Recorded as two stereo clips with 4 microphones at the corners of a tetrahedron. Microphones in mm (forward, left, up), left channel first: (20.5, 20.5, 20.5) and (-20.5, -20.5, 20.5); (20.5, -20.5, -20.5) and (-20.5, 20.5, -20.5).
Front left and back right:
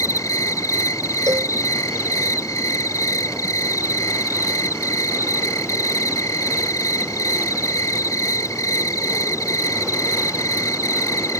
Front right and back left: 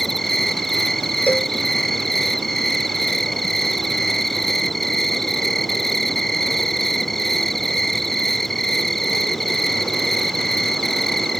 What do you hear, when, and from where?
0.0 s an insect: 40° left
1.3 s a cowbell: 110° right